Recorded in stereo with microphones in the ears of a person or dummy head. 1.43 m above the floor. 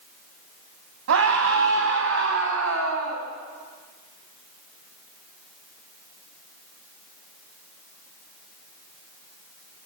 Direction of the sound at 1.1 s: 70° right (ahead or behind).